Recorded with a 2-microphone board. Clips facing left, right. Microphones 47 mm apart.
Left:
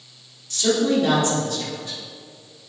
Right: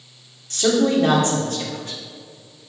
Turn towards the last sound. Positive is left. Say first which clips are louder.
# right 2 dB
turn(degrees=-40)  # may be behind; listen again after turning